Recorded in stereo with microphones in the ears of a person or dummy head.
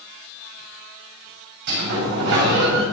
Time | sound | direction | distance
1.7 | a sliding door | 60° right (ahead or behind) | 5.5 m